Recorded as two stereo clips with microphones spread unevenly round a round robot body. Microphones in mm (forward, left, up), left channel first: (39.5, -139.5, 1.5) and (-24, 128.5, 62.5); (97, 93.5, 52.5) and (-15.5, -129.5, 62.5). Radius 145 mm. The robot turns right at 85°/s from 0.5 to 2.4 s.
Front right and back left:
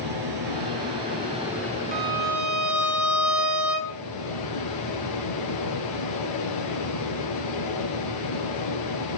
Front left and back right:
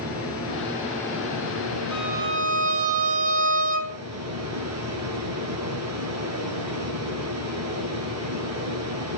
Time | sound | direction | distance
0.0 | running water | 100° left | 8 m
1.9 | a violin | 165° left | 3 m